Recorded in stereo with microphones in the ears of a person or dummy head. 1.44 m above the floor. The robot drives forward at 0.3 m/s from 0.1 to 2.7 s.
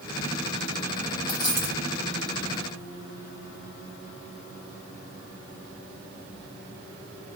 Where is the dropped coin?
20° left (ahead or behind), 0.8 m.